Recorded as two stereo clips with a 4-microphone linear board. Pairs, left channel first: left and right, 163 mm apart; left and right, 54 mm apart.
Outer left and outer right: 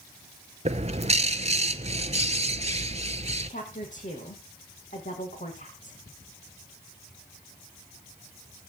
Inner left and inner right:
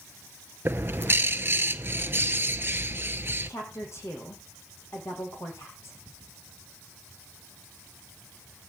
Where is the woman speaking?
50° left (ahead or behind), 6 m.